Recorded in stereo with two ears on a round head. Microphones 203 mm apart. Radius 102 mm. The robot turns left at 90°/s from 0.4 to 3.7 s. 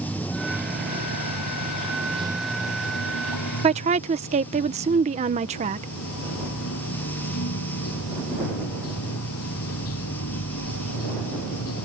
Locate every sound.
0.0 s running water: 5° left; by 11.8 s 70° left
3.6 s a woman speaking: 25° right (ahead or behind); by 5.9 s 30° right (ahead or behind)